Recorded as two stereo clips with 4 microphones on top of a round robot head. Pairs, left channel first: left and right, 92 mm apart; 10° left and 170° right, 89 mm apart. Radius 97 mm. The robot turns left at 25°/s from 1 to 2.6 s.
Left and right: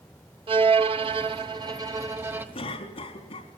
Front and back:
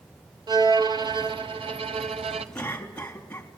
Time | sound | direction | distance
0.5 | a violin | 125° right | 1.1 m
2.5 | a cough | 85° left | 4 m